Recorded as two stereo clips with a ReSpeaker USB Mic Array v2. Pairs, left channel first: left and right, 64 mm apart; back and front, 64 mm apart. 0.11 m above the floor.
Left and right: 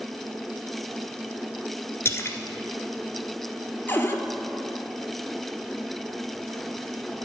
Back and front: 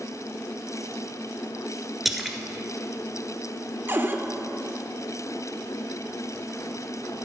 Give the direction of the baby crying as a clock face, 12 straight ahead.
I don't hear a baby crying.